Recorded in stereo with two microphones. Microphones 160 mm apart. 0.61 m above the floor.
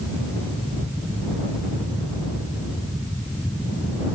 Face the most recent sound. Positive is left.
No sound to turn to.